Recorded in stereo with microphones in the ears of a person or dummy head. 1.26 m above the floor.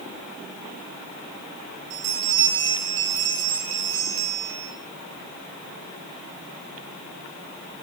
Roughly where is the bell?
Right.